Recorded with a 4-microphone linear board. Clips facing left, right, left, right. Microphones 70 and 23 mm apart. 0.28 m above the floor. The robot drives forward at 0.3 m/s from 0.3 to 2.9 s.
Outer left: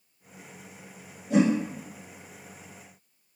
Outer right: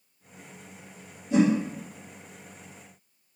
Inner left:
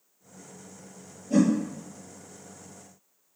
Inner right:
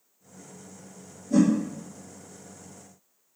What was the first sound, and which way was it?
A whoosh, 65° left (ahead or behind).